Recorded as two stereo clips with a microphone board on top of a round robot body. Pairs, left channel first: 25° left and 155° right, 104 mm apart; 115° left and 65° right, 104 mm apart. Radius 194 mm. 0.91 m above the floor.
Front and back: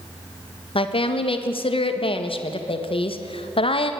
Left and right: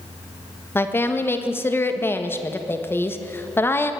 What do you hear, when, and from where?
0.8 s a woman speaking: 45° left, 1.8 m